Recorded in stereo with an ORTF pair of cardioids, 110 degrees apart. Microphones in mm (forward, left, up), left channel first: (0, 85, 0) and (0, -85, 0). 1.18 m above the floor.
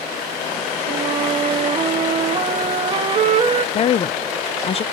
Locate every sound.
0.9 s a flute: 35° right, 1.5 m
3.8 s a woman speaking: 40° left, 0.5 m